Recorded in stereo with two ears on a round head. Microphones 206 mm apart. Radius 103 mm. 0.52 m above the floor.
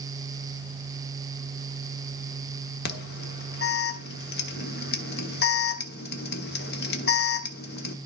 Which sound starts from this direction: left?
An alarm, at 2.9 s.